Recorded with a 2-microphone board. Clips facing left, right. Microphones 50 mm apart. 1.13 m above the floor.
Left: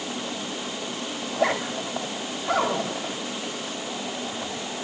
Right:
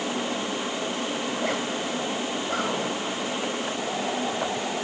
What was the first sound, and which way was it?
A zipper, 85° left.